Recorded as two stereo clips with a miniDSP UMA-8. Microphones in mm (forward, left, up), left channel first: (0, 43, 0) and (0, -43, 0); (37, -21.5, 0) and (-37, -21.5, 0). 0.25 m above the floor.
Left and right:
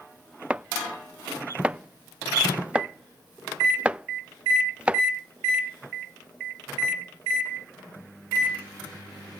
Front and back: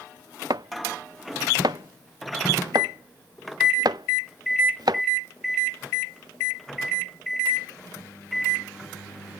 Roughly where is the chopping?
Behind.